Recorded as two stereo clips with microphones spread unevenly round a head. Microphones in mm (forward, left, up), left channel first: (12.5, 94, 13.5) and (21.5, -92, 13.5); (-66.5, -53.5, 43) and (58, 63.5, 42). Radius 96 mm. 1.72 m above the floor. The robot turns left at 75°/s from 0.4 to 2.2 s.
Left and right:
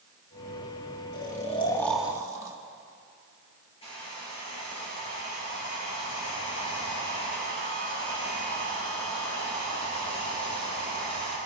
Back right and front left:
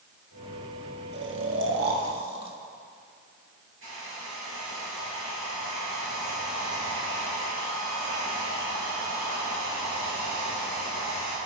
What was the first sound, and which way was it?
Snoring, 65° left.